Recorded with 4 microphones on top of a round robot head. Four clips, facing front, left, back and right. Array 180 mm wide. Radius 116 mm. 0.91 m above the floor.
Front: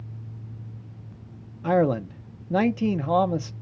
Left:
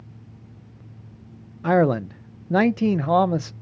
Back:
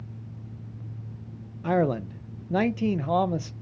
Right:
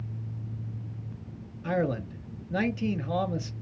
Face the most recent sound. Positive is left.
turn(degrees=85)